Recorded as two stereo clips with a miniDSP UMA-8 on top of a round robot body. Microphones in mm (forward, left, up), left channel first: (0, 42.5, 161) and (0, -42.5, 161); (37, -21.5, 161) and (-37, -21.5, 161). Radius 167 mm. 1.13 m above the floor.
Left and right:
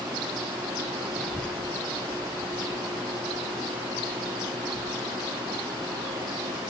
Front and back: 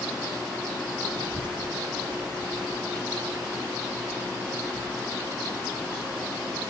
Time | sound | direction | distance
1.1 | a child speaking | straight behind | 0.5 m